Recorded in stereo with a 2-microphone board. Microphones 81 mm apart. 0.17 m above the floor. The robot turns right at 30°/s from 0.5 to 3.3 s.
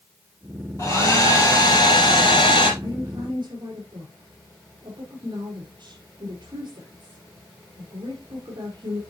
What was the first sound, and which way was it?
A hair dryer, 35° left.